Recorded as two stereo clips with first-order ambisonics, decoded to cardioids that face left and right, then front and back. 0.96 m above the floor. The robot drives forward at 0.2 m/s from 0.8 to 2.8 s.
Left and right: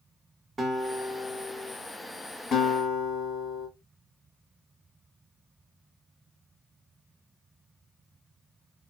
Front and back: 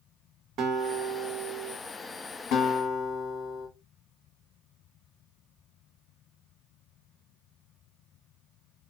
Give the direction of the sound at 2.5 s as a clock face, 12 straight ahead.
11 o'clock.